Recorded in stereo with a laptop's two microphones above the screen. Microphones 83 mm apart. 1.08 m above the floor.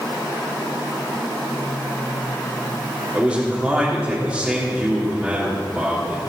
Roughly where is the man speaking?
Centre.